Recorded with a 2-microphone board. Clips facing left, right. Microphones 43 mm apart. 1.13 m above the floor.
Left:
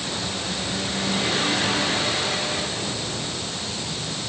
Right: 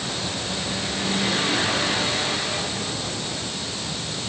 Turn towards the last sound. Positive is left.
No sound to turn to.